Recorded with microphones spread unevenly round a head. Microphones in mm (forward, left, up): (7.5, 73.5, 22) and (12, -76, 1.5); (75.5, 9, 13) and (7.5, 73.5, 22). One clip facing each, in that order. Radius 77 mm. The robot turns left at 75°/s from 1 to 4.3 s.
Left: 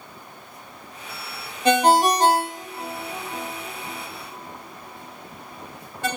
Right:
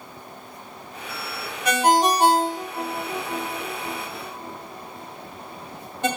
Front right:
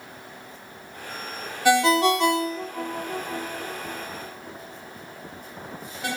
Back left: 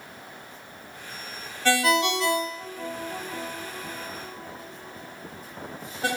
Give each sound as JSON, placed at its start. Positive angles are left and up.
{"t": 1.6, "sound": "a ringtone", "azimuth_deg": 40, "distance_m": 0.8}